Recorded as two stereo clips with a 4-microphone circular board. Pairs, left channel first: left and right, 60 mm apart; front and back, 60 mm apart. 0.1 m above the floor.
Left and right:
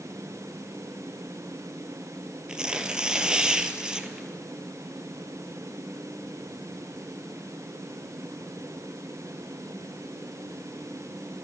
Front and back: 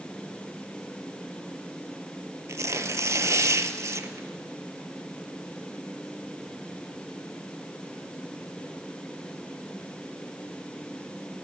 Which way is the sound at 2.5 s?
165° right.